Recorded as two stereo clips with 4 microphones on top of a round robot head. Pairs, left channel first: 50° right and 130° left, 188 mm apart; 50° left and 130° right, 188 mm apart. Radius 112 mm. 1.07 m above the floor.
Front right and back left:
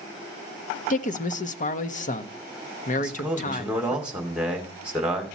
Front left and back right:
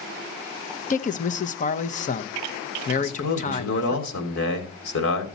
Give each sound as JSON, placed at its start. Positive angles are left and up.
{"t": 0.9, "sound": "a man speaking", "azimuth_deg": 0, "distance_m": 0.9}
{"t": 3.0, "sound": "a man speaking", "azimuth_deg": 45, "distance_m": 2.5}